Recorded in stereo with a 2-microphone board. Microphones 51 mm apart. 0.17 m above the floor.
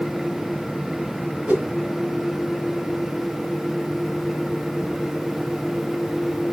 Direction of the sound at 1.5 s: 30° right (ahead or behind).